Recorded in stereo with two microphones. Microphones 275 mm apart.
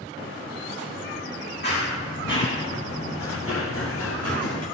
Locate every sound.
1.6 s running footsteps: 40° left (ahead or behind), 7.5 m; by 4.7 s 70° left (ahead or behind), 5.5 m